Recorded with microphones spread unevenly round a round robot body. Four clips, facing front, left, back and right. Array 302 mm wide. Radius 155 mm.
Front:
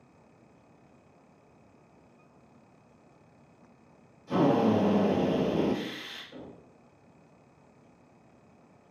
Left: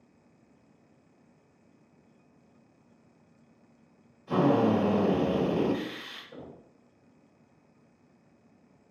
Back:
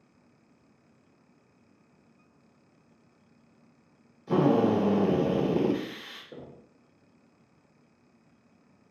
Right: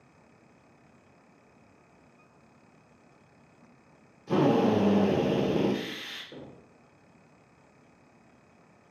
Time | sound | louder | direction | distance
4.3 | a drill | even, back 1 dB | 145° right | 1.1 m
6.3 | knocking | even, back 3 dB | 155° right | 1.2 m